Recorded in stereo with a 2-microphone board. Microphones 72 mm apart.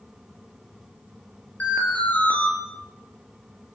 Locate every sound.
1.6 s an alarm: 20° left (ahead or behind), 7.5 m